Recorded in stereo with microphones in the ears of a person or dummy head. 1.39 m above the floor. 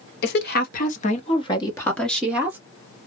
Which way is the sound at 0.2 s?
65° left (ahead or behind).